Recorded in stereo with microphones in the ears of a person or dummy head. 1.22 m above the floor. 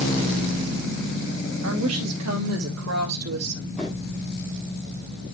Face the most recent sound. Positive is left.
turn(degrees=0)  # may be behind; listen again after turning